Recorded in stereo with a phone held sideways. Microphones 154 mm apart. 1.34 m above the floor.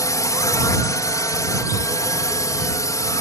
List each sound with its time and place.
0.0 s a drone: 20° left (ahead or behind)